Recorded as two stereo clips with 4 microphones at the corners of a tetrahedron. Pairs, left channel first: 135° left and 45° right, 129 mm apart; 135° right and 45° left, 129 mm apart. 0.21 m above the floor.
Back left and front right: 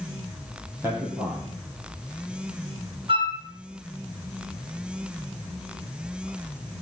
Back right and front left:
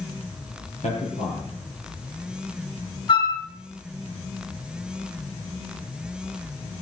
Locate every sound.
0.8 s a man speaking: 115° right, 6.5 m
3.1 s a flute: 90° right, 2.5 m